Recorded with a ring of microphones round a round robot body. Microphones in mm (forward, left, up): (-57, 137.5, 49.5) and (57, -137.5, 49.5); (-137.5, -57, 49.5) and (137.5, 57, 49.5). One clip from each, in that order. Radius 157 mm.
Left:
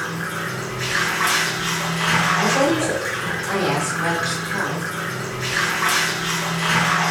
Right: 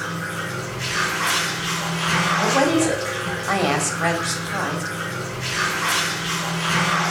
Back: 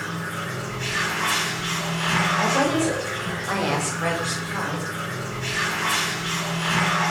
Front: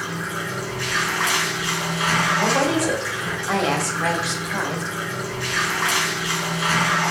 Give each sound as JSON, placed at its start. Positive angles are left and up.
{"t": 0.0, "sound": "running water", "azimuth_deg": 35, "distance_m": 4.5}
{"t": 2.4, "sound": "a woman speaking", "azimuth_deg": -40, "distance_m": 1.5}